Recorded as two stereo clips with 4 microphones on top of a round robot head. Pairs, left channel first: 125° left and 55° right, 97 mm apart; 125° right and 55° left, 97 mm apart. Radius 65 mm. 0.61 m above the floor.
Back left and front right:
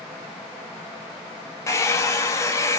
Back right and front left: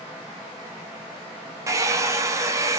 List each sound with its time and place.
1.7 s a hair dryer: 90° left, 0.7 m